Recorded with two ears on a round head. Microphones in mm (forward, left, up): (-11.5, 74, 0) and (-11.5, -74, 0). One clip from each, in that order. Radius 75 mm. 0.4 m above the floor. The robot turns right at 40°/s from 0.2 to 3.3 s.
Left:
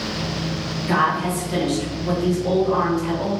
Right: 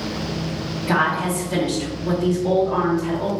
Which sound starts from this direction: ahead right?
A woman speaking, at 0.9 s.